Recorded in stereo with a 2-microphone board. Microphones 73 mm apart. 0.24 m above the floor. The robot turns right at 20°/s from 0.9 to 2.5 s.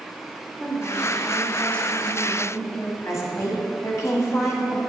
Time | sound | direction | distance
0.6 | a woman speaking | 10° left (ahead or behind) | 1.1 m
3.0 | a woman speaking | 40° left (ahead or behind) | 1.7 m